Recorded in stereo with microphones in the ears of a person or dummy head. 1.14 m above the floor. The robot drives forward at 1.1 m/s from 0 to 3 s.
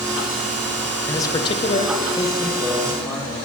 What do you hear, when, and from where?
1.1 s a man speaking: 20° left (ahead or behind), 0.9 m; by 3.4 s 10° left (ahead or behind), 1.6 m